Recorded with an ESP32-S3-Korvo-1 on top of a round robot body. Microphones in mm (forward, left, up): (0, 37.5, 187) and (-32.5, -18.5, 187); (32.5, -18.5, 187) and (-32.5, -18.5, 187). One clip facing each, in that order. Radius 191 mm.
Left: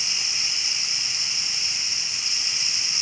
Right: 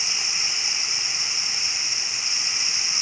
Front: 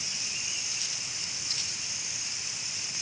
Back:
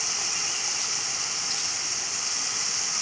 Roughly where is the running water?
Behind.